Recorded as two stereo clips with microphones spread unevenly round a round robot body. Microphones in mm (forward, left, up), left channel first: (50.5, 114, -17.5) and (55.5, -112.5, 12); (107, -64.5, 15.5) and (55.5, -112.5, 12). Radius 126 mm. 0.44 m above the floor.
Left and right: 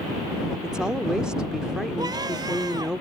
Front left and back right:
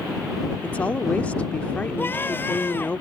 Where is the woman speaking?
15° left.